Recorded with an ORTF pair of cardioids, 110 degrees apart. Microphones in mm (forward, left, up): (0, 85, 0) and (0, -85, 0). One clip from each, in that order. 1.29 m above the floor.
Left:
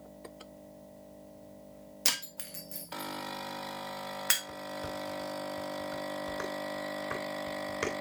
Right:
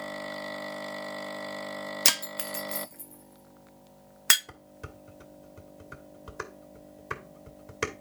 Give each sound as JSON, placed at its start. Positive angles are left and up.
{"t": 2.0, "sound": "breaking glass", "azimuth_deg": -35, "distance_m": 1.1}
{"t": 4.5, "sound": "dishes clattering", "azimuth_deg": -30, "distance_m": 2.5}